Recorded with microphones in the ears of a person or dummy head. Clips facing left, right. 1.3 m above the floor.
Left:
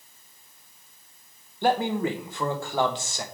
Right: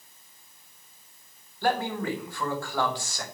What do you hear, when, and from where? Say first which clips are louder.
1.6 s a man speaking: left 3 dB; 20° left (ahead or behind), 1.3 m